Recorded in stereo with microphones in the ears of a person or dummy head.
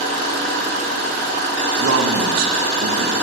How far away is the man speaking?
About 1.7 m.